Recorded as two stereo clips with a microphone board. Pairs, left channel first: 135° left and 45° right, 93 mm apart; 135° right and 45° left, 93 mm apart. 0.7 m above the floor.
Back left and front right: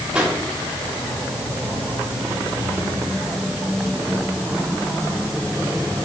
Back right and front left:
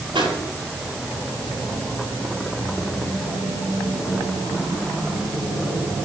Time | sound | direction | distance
0.1 | a pop | 35° left | 6.5 m